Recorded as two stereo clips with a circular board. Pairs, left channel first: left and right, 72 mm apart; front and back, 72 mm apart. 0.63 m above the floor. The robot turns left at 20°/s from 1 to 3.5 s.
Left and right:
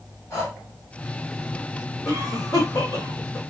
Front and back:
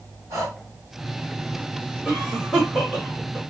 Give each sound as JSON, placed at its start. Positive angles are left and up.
{"t": 0.3, "sound": "breathing", "azimuth_deg": 140, "distance_m": 2.0}
{"t": 2.0, "sound": "a cough", "azimuth_deg": 110, "distance_m": 2.5}